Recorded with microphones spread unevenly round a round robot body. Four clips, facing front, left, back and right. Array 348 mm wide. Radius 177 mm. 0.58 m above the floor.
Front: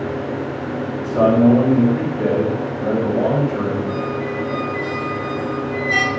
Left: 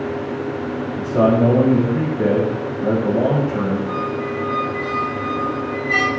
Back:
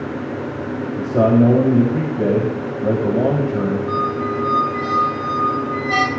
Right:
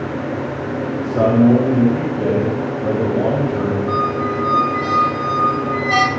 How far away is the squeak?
About 2.0 m.